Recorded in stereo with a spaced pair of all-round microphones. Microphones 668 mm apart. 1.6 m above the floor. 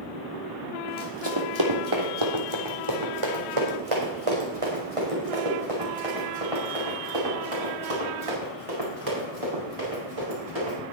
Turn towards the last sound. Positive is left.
turn(degrees=-55)  # may be behind; listen again after turning